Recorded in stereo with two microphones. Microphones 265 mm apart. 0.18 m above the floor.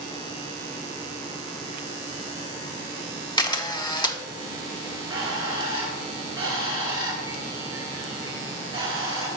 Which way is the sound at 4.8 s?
20° right (ahead or behind).